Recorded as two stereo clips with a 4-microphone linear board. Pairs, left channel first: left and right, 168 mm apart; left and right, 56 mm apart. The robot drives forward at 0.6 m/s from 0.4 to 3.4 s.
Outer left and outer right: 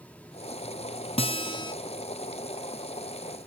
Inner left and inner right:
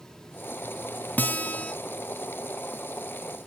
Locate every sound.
1.2 s a guitar: 35° left (ahead or behind), 0.5 m; by 1.7 s 25° left (ahead or behind), 0.7 m